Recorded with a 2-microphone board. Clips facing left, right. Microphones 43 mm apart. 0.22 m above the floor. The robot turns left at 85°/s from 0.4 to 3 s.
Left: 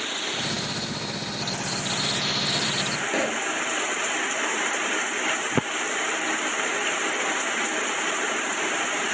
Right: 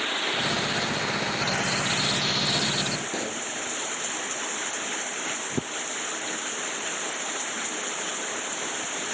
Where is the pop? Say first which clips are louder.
Left 6 dB; 60° left (ahead or behind).